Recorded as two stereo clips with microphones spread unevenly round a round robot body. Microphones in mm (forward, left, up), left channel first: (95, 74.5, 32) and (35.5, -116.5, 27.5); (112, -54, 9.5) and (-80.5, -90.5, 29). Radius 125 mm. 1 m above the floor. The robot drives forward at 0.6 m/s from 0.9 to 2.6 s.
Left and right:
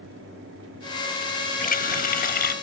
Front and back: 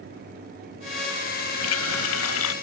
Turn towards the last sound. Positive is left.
turn(degrees=35)